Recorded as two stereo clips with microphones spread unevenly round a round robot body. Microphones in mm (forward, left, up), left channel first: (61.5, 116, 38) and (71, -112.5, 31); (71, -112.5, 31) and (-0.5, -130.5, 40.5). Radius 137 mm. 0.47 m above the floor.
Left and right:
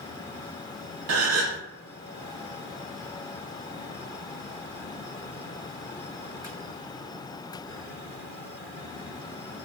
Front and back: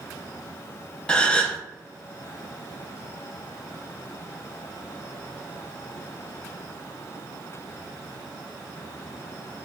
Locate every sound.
1.1 s a gasp: 65° right, 0.6 m